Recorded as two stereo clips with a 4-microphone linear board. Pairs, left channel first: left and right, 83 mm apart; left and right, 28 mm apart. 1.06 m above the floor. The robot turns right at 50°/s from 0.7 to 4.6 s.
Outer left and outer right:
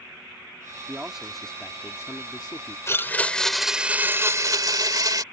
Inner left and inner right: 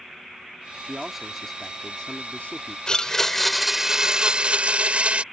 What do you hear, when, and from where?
0.8 s a man speaking: 25° right; by 2.8 s 75° left
2.9 s a blender: 145° left; by 5.2 s 130° right